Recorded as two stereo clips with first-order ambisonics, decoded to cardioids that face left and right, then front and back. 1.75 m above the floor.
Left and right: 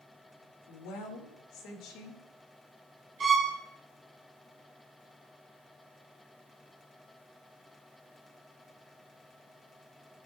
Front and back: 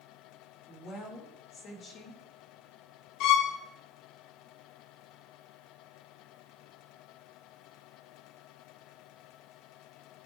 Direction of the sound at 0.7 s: 60° left.